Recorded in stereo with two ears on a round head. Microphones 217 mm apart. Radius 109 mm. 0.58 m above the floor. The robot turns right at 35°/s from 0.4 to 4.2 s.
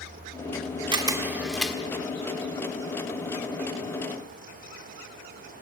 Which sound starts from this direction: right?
A camera shutter, at 0.9 s.